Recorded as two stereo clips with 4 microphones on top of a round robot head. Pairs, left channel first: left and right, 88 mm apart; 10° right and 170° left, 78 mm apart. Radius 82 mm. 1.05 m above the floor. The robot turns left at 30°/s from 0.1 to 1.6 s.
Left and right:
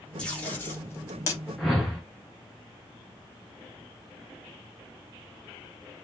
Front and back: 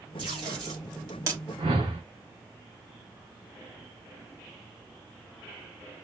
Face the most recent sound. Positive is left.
turn(degrees=180)